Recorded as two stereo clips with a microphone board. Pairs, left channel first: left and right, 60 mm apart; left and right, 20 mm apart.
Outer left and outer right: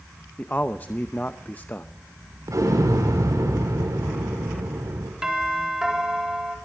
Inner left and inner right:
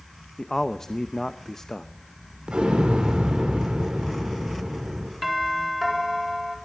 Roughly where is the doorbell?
Centre.